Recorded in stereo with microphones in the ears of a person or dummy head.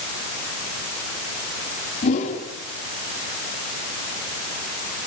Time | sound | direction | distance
2.0 | a whoosh | 40° left (ahead or behind) | 3.5 m